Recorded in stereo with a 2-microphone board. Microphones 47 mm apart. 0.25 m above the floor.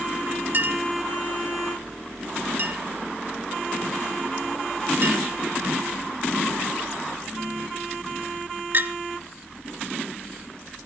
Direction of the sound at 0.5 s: 45° right (ahead or behind).